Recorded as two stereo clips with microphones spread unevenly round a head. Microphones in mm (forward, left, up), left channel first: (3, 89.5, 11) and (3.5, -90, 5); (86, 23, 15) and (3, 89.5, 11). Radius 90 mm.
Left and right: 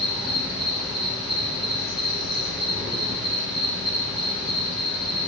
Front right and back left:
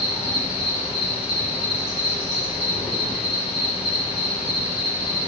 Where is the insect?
Straight ahead, 5 m.